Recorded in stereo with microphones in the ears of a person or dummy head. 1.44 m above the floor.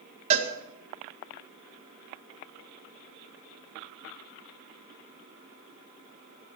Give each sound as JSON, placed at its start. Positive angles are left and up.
{"t": 0.3, "sound": "a cowbell", "side_deg": -30, "distance_m": 1.9}